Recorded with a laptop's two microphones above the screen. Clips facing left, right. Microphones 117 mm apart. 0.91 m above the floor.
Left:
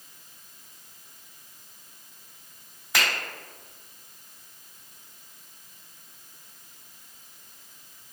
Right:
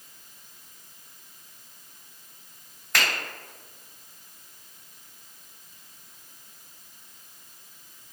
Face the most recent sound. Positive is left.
turn(degrees=5)  # may be behind; listen again after turning